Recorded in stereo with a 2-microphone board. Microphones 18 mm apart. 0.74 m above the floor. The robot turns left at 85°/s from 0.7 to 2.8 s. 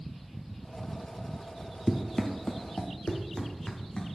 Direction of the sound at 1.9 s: Centre (ahead or behind).